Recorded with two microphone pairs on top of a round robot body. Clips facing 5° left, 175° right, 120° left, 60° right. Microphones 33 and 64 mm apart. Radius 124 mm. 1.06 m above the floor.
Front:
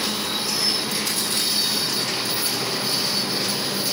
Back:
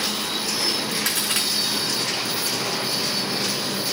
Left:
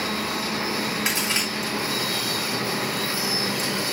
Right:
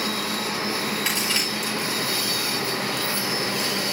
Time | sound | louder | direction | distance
1.1 | a crack | back 1 dB, even | 165° right | 8 m